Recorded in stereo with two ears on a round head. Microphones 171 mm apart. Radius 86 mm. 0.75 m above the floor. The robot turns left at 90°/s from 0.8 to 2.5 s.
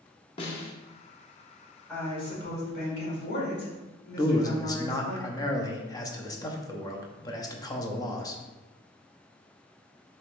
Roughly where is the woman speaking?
Behind.